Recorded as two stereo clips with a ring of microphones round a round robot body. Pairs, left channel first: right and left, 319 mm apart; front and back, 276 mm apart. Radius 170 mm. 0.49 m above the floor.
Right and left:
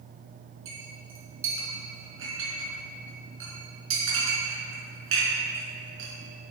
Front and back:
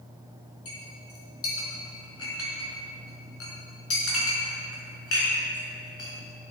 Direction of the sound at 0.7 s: 40° left.